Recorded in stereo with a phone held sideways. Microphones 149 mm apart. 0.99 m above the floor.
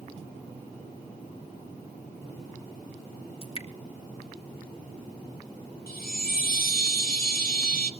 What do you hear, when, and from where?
3.4 s dripping: 35° left (ahead or behind), 1.9 m
5.9 s a chime: 70° left (ahead or behind), 1.6 m